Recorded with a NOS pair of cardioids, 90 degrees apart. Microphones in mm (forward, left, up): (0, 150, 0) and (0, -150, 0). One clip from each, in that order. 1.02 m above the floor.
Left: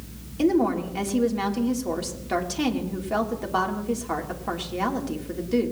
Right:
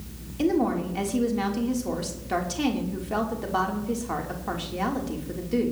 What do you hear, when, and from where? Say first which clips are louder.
0.4 s a woman speaking: left 2 dB; 15° left, 3 m